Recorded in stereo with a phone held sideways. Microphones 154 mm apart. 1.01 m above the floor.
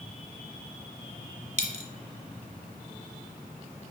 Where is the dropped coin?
45° right (ahead or behind), 1.1 m.